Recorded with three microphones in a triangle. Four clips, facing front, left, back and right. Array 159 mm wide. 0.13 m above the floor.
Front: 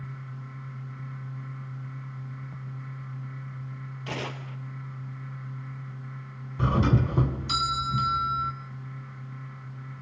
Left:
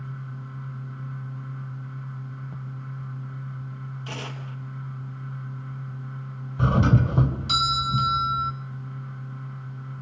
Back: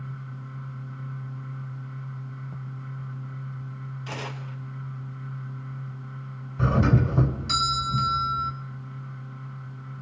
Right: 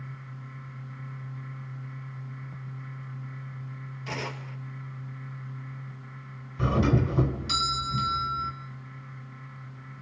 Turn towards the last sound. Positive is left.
turn(degrees=90)